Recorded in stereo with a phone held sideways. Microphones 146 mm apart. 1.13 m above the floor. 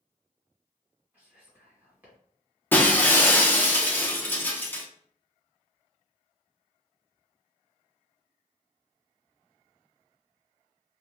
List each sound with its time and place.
1.1 s whispering: 15° right (ahead or behind), 1.6 m
2.7 s breaking glass: 15° left (ahead or behind), 0.6 m